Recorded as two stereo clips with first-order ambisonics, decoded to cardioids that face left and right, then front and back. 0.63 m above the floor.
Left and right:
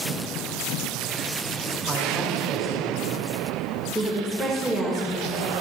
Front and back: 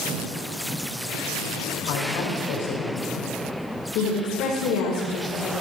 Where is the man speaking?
15° right, 3 m.